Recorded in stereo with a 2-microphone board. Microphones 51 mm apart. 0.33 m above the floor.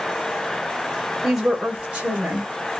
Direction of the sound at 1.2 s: Centre (ahead or behind).